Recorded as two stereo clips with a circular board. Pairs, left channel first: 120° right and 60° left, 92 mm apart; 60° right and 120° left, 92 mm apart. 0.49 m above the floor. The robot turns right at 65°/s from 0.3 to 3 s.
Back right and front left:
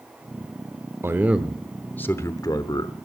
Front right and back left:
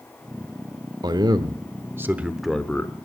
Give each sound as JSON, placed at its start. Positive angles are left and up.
{"t": 1.0, "sound": "a man speaking", "azimuth_deg": 115, "distance_m": 1.0}